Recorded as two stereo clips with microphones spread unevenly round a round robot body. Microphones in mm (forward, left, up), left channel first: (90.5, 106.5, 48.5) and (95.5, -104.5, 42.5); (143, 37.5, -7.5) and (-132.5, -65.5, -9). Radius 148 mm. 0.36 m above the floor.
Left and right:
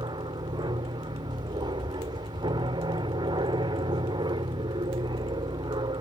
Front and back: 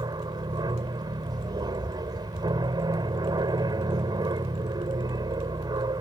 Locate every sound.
0.0 s an aircraft: 105° right